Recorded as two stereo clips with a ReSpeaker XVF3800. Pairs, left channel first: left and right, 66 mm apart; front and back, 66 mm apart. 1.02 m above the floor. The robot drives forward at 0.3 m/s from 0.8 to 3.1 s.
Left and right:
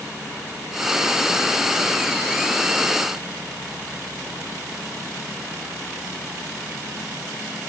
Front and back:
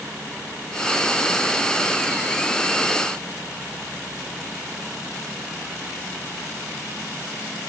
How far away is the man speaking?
No man speaking in this recording.